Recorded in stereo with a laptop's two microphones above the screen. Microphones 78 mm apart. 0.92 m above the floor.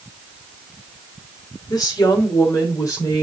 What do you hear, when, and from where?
1.7 s a woman speaking: 55° left (ahead or behind), 2.5 m; by 3.2 s 45° left (ahead or behind), 3.5 m